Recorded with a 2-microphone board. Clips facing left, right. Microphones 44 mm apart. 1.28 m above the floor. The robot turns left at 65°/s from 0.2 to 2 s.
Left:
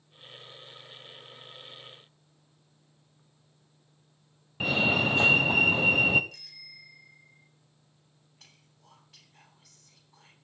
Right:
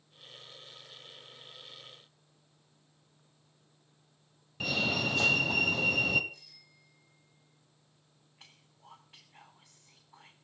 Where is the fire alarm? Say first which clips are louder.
Left 6 dB; 25° left (ahead or behind), 1.4 m.